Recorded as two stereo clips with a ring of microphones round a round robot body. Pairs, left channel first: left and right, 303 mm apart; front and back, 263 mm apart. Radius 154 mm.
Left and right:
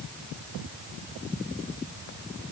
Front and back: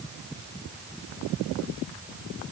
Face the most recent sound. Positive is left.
No sound to turn to.